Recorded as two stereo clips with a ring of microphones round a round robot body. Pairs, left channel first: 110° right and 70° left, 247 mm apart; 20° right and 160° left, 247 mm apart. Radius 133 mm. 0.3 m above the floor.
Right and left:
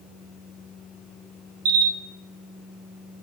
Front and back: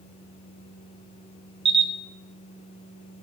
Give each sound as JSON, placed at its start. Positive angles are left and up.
{"t": 1.6, "sound": "a camera shutter", "azimuth_deg": 90, "distance_m": 1.0}